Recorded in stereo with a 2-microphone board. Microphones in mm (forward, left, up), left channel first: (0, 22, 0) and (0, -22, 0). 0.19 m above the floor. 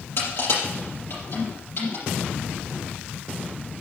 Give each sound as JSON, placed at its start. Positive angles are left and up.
{"t": 0.2, "sound": "crushing", "side_deg": 65, "distance_m": 6.0}